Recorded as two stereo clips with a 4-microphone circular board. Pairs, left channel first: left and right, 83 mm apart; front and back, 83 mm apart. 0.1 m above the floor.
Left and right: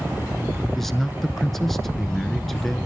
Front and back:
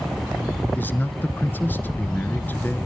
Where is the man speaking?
10° left, 1.1 m.